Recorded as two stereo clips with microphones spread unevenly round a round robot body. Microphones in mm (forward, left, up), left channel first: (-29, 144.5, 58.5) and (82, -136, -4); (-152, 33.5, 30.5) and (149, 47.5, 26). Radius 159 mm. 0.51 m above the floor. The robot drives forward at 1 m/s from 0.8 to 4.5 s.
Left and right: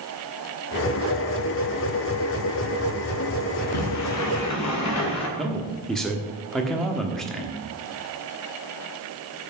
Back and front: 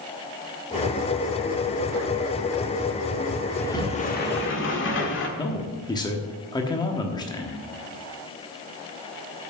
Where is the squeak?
No squeak in this recording.